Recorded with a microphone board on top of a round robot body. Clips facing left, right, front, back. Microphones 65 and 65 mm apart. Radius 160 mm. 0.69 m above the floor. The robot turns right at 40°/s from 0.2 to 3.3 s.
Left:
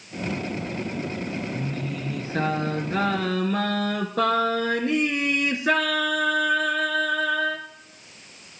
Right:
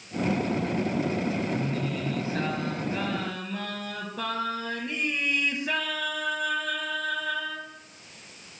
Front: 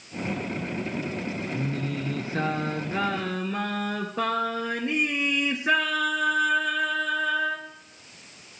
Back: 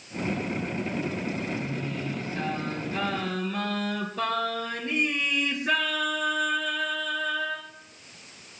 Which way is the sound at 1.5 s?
5° right.